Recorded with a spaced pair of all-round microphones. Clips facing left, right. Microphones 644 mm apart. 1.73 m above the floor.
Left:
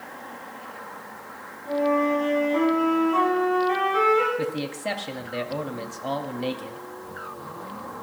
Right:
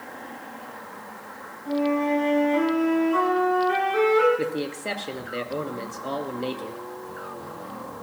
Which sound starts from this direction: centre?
A flute, at 1.6 s.